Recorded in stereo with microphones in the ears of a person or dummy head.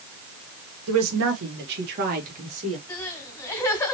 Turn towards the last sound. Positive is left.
turn(degrees=15)  # may be behind; listen again after turning